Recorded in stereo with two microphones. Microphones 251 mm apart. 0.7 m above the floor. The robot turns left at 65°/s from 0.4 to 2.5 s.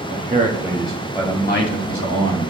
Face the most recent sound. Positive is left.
turn(degrees=75)